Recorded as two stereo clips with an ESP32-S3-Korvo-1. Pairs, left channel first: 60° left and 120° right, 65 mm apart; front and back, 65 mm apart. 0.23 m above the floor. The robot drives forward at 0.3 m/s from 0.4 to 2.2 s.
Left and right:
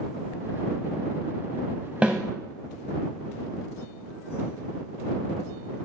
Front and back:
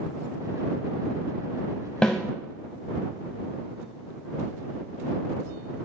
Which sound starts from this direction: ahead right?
A snare drum, at 2.0 s.